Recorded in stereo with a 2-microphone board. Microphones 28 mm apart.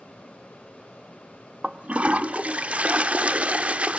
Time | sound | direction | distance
1.6 | a toilet flushing | 50° right (ahead or behind) | 0.6 m